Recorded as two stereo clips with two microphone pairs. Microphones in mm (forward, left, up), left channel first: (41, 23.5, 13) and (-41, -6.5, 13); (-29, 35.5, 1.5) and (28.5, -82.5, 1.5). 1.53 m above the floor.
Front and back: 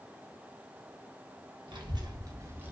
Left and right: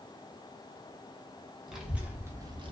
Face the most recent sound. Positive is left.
turn(degrees=-90)